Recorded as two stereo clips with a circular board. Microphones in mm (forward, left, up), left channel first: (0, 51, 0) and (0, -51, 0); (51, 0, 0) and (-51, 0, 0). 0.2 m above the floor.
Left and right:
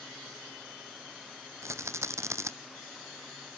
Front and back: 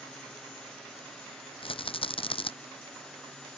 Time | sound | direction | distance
1.6 | a rattle | 30° right | ?